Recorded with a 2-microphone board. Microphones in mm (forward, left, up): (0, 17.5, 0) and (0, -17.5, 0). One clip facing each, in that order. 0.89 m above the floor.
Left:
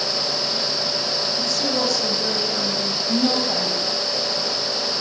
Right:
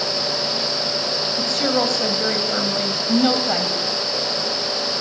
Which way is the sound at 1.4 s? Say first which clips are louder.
Right 5 dB; 45° right (ahead or behind).